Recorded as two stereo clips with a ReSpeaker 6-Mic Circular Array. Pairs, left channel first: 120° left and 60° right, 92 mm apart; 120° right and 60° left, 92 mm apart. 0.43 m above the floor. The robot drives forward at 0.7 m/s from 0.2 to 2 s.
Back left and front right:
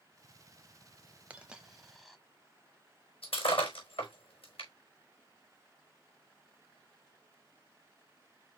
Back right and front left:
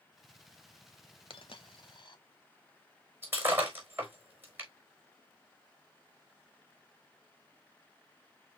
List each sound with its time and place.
1.3 s a dropped coin: 135° right, 0.9 m; by 2.2 s 150° right, 1.3 m
3.2 s breaking glass: 125° left, 4.5 m